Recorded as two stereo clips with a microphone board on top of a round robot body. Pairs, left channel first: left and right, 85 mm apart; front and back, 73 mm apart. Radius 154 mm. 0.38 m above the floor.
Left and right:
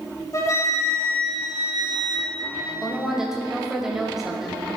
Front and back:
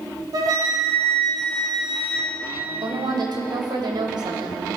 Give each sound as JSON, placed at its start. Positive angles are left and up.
{"t": 0.3, "sound": "a flute", "azimuth_deg": 140, "distance_m": 2.5}
{"t": 2.8, "sound": "a woman speaking", "azimuth_deg": -175, "distance_m": 3.0}